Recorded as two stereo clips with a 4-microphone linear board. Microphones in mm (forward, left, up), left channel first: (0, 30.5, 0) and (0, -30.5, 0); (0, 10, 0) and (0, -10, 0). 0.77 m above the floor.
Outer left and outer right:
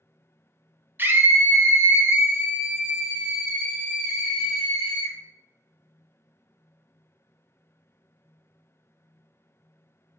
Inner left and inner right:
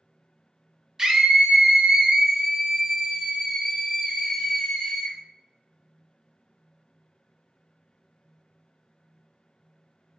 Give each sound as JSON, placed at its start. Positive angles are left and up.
{"t": 1.0, "sound": "a scream", "side_deg": -30, "distance_m": 0.7}